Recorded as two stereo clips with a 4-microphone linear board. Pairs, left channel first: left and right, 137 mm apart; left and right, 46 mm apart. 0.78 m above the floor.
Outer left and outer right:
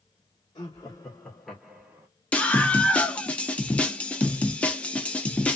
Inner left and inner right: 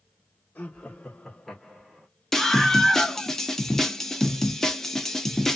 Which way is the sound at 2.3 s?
10° left (ahead or behind).